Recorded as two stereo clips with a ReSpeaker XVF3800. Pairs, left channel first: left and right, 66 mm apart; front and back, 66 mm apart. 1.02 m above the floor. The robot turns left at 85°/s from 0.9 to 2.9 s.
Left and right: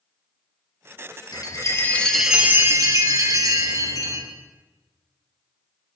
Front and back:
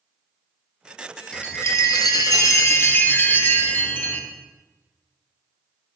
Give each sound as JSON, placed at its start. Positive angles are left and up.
{"t": 1.3, "sound": "a chime", "azimuth_deg": 75, "distance_m": 1.0}